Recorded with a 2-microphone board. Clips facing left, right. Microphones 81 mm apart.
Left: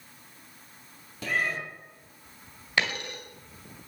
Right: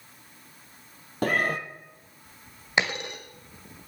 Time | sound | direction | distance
1.2 | a cat meowing | 50° right (ahead or behind) | 1.0 m
2.8 | a dropped coin | 20° right (ahead or behind) | 1.7 m